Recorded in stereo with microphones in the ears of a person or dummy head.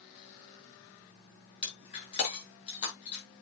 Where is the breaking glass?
30° left (ahead or behind), 6.5 m.